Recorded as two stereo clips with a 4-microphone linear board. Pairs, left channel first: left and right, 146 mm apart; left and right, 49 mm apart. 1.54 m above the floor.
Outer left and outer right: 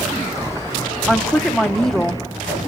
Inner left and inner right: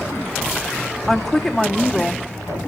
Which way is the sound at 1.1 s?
5° left (ahead or behind).